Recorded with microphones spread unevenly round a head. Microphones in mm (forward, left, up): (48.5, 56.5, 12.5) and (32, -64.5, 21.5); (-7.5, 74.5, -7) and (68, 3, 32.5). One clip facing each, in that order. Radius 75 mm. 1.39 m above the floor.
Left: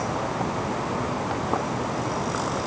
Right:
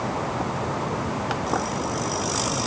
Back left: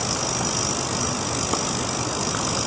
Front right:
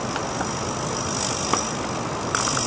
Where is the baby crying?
I don't hear a baby crying.